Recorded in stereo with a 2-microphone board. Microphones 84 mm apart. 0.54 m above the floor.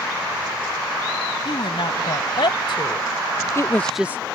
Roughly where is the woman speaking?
Left.